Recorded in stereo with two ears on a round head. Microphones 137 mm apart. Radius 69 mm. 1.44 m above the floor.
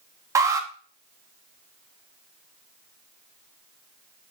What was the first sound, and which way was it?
An alarm, 20° right (ahead or behind).